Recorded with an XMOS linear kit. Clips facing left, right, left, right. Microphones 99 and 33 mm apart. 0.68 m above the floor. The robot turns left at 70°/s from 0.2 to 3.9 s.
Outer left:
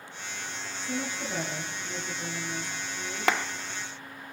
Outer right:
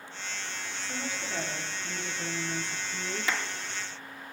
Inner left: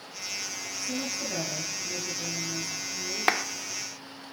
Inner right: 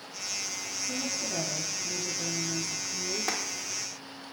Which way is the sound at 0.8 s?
65° left.